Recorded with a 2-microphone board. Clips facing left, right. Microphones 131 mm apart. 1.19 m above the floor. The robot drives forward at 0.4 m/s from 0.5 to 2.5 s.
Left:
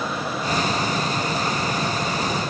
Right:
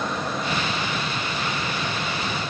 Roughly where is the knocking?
I don't hear knocking.